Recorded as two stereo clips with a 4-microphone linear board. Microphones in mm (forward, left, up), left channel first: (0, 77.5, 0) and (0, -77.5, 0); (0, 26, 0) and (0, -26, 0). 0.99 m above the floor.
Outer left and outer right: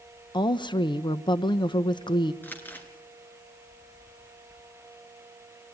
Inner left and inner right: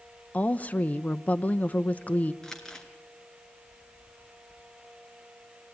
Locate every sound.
0.3 s a woman speaking: 30° left (ahead or behind), 0.6 m
2.4 s crumpling: 10° left (ahead or behind), 2 m